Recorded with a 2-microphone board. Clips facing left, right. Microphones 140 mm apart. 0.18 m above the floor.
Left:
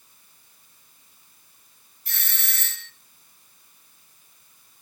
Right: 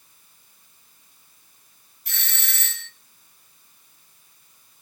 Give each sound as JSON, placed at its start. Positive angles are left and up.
{"t": 2.0, "sound": "a doorbell", "side_deg": 30, "distance_m": 2.5}